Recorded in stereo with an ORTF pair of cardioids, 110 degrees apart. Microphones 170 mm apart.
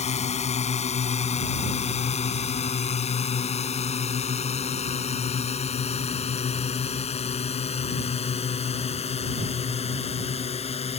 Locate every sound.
0.0 s a drone: 40° left; by 11.0 s 35° left